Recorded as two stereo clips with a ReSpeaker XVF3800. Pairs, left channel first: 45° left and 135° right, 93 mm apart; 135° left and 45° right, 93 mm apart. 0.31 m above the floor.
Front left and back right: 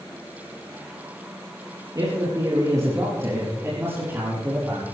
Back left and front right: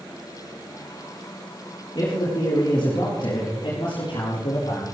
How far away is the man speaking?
About 6 m.